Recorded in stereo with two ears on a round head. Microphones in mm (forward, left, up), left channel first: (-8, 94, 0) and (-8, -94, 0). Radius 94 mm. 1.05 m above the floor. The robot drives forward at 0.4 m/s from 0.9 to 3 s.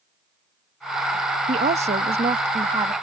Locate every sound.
1.5 s a woman speaking: 35° right (ahead or behind); by 2.9 s 25° right (ahead or behind)